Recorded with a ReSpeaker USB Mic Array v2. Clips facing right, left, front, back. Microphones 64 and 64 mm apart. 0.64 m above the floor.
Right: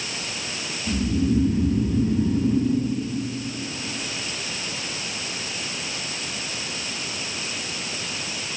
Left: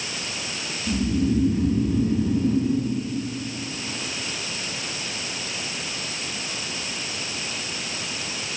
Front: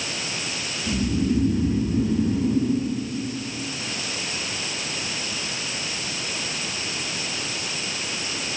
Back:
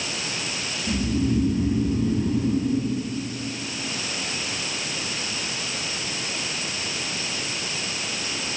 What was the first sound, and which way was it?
Snoring, 5° left.